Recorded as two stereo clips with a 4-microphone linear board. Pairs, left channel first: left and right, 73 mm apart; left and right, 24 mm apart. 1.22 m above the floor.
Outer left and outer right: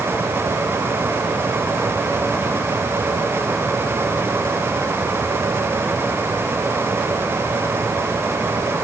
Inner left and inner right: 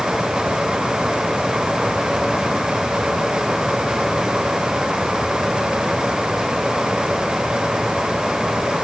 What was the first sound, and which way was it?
Only background noise.